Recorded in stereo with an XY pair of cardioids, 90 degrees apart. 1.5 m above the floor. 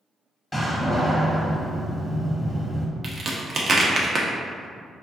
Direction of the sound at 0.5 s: 20° left.